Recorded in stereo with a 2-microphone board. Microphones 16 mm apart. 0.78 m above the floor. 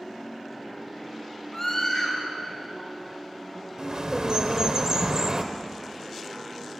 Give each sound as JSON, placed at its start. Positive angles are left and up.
{"t": 1.5, "sound": "a scream", "side_deg": 20, "distance_m": 5.0}
{"t": 3.8, "sound": "a bird", "side_deg": -55, "distance_m": 0.9}